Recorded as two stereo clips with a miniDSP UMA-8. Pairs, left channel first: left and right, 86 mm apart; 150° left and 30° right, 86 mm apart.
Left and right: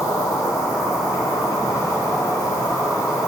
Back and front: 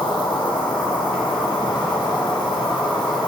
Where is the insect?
140° left, 1.7 m.